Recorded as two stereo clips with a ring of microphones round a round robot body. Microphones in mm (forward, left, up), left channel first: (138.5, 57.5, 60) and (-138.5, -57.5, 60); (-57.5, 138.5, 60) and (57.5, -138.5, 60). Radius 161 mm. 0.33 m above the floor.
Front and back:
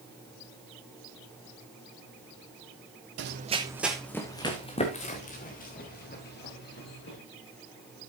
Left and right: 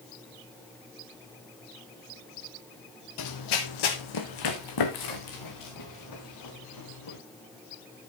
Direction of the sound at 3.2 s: 150° left.